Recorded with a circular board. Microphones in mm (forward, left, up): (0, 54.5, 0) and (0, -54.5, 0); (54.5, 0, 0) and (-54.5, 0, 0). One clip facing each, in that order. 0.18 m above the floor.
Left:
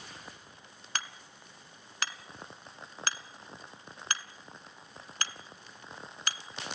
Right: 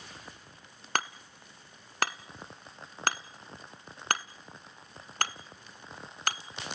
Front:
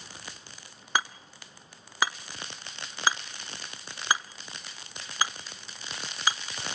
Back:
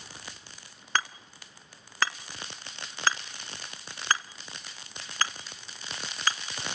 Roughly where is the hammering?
Right.